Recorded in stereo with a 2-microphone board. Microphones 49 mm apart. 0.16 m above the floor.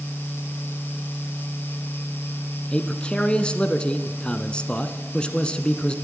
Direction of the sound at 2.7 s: 20° left (ahead or behind).